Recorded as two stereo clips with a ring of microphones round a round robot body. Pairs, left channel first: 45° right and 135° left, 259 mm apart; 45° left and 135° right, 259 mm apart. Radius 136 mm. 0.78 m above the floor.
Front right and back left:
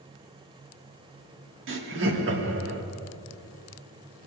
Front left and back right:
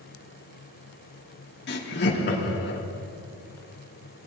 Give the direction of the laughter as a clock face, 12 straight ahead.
9 o'clock.